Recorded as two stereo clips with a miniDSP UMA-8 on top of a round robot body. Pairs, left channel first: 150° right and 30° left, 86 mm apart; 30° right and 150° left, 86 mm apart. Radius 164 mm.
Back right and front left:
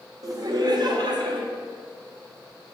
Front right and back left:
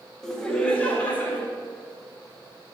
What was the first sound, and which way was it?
Laughter, 55° left.